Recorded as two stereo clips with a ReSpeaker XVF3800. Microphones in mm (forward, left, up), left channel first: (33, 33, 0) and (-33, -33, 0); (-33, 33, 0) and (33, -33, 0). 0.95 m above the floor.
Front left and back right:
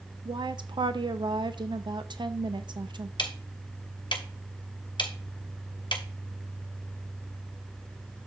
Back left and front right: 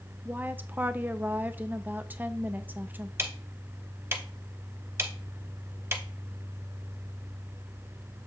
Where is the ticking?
15° left, 0.9 m.